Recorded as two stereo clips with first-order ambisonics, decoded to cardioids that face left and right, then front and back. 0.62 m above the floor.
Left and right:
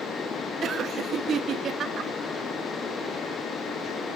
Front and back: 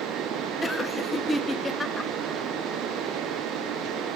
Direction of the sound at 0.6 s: 70° right.